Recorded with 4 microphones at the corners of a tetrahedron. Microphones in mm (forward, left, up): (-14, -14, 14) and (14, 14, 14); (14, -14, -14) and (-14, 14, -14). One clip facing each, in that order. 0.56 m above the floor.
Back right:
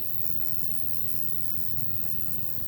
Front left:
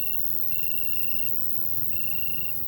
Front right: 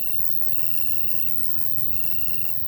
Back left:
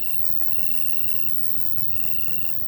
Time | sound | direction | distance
0.0 | an insect | 55° left | ?